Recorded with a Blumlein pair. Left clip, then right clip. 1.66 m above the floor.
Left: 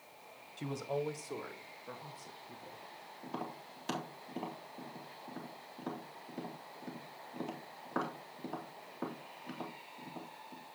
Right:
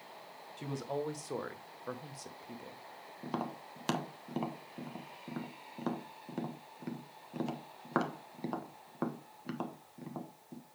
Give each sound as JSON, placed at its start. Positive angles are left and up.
{"t": 0.6, "sound": "a man speaking", "azimuth_deg": 0, "distance_m": 1.5}
{"t": 3.2, "sound": "tapping", "azimuth_deg": -30, "distance_m": 1.3}